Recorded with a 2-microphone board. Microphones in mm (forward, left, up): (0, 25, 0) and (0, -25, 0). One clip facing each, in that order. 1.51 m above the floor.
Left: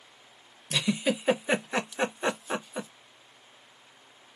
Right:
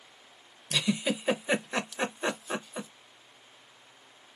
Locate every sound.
0.7 s a giggle: 10° left (ahead or behind), 0.7 m